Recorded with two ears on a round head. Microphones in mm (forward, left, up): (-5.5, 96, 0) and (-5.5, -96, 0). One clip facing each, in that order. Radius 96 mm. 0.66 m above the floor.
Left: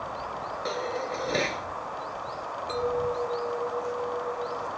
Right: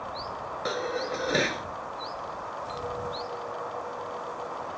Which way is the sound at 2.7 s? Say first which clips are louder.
Left 9 dB; 60° left (ahead or behind).